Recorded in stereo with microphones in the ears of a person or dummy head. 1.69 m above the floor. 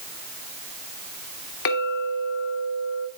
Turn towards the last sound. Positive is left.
turn(degrees=50)  # may be behind; listen again after turning